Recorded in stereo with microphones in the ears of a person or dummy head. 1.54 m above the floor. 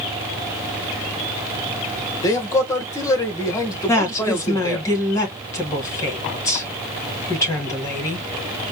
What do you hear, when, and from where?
2.2 s a man speaking: 20° left (ahead or behind), 1.2 m
3.9 s a woman speaking: 20° left (ahead or behind), 2.5 m